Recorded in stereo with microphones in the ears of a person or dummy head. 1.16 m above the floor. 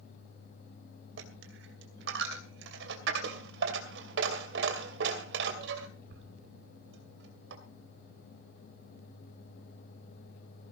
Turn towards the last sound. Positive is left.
turn(degrees=-75)  # may be behind; listen again after turning